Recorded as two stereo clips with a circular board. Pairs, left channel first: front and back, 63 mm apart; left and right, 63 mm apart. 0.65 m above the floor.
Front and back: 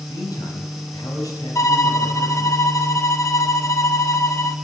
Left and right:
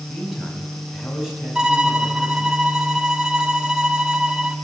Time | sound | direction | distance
0.1 | a man speaking | 5° right | 5 m
1.6 | a violin | 15° right | 1.3 m